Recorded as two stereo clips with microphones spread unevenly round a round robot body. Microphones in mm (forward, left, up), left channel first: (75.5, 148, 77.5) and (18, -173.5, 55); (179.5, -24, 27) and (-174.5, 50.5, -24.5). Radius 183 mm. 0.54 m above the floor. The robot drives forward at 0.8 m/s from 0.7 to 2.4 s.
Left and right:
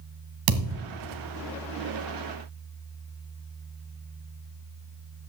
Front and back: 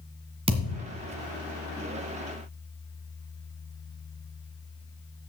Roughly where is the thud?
Behind right.